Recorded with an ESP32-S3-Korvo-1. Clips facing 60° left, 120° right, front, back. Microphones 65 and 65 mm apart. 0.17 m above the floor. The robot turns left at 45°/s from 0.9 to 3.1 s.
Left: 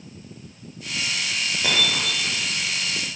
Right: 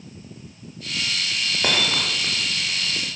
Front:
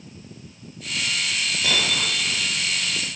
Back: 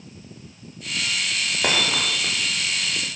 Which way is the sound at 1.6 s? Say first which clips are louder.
Right 1 dB, back 3 dB; 155° right.